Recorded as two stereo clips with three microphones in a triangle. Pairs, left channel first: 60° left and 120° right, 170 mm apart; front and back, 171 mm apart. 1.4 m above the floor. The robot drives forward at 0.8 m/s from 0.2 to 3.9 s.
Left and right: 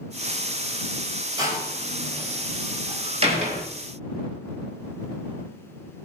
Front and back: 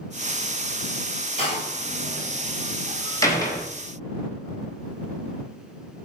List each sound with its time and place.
1.4 s a door slam: 55° right, 5 m; by 3.7 s 75° right, 4 m